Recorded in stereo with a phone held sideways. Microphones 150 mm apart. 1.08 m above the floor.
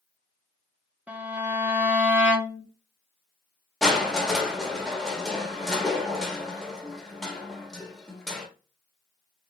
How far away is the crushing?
About 0.9 m.